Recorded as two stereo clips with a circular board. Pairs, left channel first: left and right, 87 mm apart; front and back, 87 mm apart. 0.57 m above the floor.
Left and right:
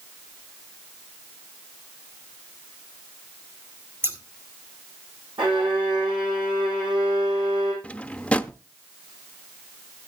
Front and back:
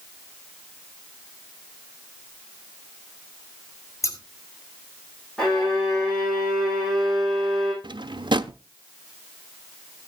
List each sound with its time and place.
4.0 s scissors: 35° right, 1.8 m
5.4 s a violin: 85° right, 7.5 m
7.8 s a drawer: 165° left, 0.6 m